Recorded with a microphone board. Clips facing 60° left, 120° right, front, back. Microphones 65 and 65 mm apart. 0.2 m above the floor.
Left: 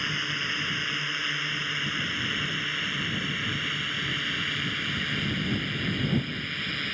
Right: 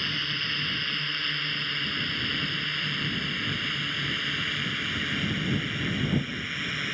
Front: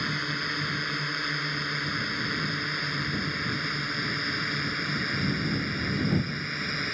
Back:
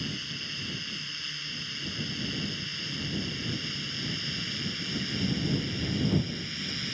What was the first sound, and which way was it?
A drone, 15° right.